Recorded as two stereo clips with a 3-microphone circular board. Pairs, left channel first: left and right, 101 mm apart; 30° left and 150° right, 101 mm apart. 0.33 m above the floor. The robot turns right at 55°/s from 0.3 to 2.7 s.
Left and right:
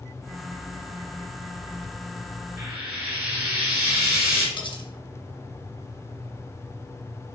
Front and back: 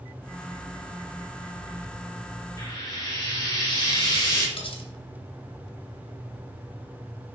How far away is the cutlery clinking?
About 1.9 m.